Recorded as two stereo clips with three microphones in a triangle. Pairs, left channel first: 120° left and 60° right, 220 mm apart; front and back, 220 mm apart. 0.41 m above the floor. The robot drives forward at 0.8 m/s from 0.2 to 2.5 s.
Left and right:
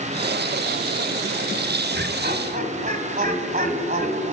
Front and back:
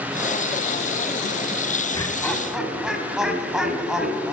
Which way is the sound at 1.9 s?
65° right.